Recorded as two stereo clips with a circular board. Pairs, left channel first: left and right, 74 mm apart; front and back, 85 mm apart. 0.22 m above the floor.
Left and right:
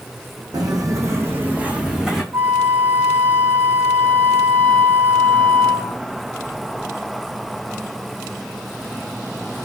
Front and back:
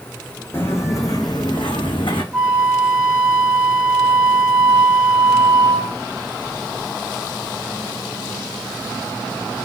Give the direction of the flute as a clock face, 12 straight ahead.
3 o'clock.